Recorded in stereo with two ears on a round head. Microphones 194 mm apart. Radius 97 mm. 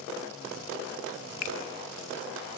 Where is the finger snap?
70° left (ahead or behind), 0.7 m.